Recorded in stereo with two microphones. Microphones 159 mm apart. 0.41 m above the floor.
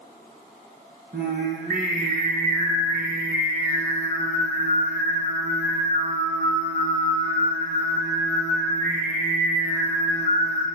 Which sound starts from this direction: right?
Singing, at 1.1 s.